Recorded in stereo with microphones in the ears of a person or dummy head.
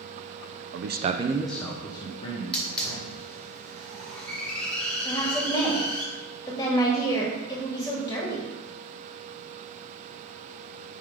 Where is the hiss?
5° left (ahead or behind), 1.9 m.